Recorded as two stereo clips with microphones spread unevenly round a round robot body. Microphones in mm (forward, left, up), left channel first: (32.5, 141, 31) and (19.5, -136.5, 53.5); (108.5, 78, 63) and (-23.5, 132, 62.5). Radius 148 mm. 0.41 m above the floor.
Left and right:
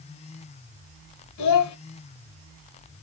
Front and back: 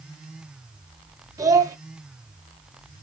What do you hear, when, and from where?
1.4 s a child speaking: 90° left, 1.1 m